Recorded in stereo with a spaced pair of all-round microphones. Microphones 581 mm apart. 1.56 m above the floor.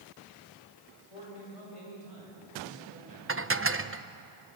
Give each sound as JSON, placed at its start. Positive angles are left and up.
{"t": 1.1, "sound": "a man speaking", "side_deg": 65, "distance_m": 8.0}
{"t": 3.3, "sound": "dishes clattering", "side_deg": -25, "distance_m": 0.6}